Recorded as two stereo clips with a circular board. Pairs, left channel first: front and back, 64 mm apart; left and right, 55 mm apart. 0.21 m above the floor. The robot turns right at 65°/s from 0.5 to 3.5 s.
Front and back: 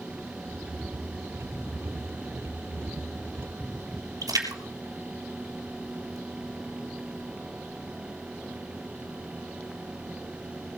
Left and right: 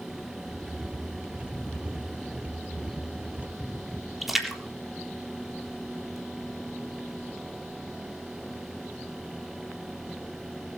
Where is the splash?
175° right, 3.5 m.